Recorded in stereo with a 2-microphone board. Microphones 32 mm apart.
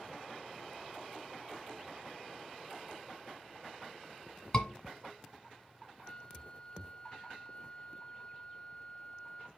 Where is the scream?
20° left (ahead or behind), 1.4 m.